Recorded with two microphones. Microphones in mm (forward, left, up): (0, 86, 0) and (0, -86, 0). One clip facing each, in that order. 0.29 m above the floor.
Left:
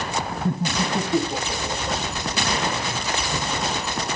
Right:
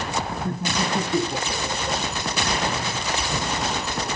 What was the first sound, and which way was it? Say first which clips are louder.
Laughter: left 2 dB; 30° left (ahead or behind).